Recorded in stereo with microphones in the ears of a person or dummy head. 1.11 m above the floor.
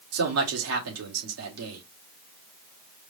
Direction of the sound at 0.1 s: 80° right.